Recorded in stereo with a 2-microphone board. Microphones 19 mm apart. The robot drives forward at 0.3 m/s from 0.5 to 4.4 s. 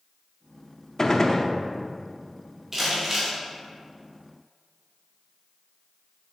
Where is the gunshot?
30° left (ahead or behind), 0.7 m; by 1.5 s 35° left (ahead or behind), 0.6 m.